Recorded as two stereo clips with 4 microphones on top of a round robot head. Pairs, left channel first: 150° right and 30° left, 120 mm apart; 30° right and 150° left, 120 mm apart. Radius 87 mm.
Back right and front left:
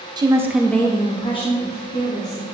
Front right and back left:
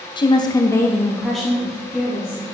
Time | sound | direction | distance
0.2 | a woman speaking | straight ahead | 0.9 m